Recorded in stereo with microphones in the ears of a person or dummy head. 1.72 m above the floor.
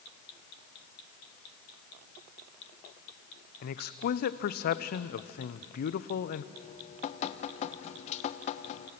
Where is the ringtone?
No ringtone in this recording.